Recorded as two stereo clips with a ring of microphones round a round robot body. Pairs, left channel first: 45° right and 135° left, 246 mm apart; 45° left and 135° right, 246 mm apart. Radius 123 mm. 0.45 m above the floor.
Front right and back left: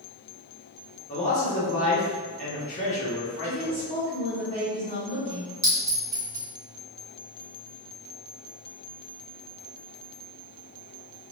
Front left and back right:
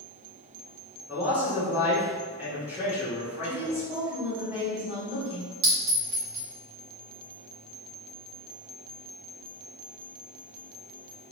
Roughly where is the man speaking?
Ahead right.